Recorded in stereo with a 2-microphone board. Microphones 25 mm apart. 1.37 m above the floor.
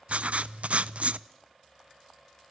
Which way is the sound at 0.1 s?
70° right (ahead or behind).